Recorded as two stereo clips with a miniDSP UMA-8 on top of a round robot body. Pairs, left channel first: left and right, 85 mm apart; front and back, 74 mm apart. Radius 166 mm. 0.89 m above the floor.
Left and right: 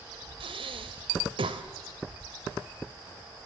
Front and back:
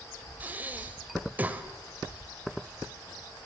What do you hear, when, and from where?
0.4 s breathing: 110° right, 1.7 m